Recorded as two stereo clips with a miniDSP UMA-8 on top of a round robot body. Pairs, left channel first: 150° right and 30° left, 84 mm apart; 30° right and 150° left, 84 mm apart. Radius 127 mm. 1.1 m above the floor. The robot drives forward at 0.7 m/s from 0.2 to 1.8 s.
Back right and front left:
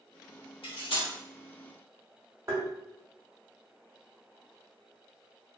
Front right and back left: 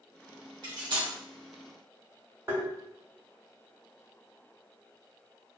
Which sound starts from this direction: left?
Tapping, at 2.5 s.